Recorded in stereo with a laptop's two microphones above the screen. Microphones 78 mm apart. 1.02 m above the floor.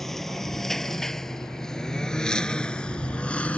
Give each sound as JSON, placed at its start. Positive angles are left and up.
{"t": 0.0, "sound": "a lawn mower", "side_deg": 5}